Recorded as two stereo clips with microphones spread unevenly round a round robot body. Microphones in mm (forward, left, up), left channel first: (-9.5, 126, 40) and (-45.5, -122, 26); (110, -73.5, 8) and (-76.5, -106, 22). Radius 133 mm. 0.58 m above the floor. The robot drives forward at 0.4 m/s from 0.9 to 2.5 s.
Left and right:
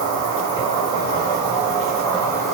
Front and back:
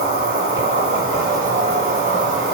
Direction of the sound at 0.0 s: 145° left.